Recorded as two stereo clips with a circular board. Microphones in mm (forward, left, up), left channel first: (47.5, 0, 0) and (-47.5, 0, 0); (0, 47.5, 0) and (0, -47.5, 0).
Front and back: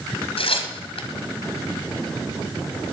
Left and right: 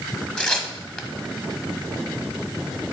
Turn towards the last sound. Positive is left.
turn(degrees=10)